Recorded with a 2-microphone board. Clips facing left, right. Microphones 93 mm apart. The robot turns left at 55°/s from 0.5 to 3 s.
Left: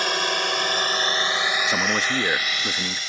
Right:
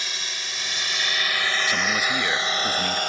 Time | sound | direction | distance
0.0 | a drone | 60° left (ahead or behind) | ?
1.7 | a man speaking | 30° left (ahead or behind) | ?